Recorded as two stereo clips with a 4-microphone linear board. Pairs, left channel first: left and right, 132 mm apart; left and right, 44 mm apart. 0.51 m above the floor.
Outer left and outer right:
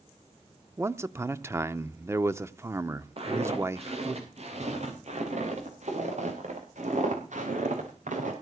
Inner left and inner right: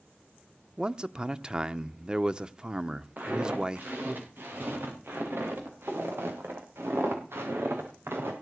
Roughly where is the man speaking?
Right.